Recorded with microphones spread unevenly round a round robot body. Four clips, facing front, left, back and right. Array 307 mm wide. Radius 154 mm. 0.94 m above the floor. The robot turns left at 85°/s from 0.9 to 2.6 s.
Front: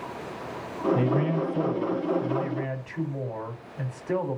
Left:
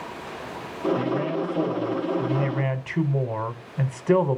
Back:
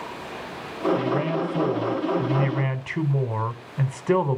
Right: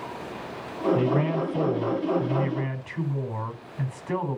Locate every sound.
0.9 s a man speaking: 75° right, 4 m; by 4.4 s 145° left, 4 m